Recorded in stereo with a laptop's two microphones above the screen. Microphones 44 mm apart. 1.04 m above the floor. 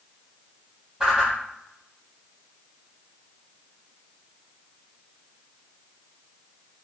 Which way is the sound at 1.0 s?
20° right (ahead or behind).